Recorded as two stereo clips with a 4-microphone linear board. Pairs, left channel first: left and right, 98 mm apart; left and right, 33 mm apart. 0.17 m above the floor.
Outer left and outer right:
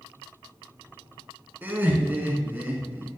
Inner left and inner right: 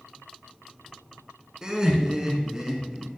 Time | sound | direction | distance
1.6 | laughter | 20° right (ahead or behind) | 1.5 m